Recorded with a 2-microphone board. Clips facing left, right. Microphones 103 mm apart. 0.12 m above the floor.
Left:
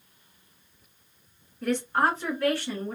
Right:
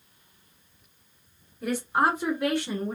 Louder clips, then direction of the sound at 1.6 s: Even; 5° right (ahead or behind).